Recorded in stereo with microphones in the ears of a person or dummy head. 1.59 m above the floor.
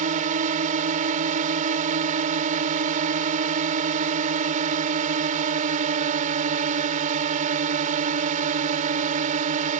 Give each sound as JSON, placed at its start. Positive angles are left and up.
{"t": 0.0, "sound": "a drone", "side_deg": -40}